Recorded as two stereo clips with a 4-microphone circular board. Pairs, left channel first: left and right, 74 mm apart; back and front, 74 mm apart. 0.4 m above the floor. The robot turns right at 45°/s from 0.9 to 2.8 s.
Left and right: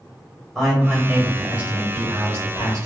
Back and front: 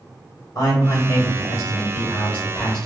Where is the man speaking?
175° left, 1.8 m; by 2.9 s 100° right, 1.8 m.